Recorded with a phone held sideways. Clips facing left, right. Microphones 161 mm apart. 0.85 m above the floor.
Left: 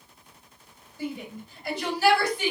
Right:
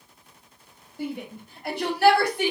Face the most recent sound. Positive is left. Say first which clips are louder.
# right 1 dB
turn(degrees=-60)  # may be behind; listen again after turning